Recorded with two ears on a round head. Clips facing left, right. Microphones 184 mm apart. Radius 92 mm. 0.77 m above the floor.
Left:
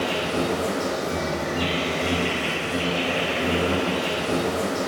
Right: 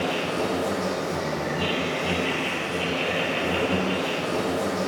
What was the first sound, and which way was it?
An insect, 60° left (ahead or behind).